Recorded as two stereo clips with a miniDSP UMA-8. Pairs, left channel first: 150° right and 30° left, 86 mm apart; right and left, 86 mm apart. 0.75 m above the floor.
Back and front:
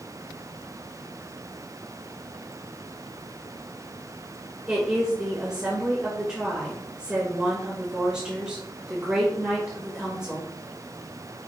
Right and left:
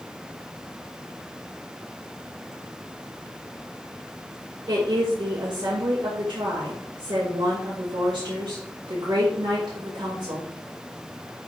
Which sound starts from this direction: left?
A woman speaking, at 4.7 s.